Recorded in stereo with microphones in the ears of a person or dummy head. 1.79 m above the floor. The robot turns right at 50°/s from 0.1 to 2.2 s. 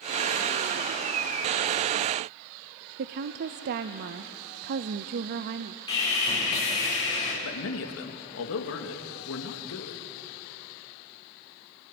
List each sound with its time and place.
3.0 s a woman speaking: 45° right (ahead or behind), 0.5 m
5.9 s sawing: 30° left (ahead or behind), 6.5 m
7.4 s a man speaking: 70° left (ahead or behind), 2 m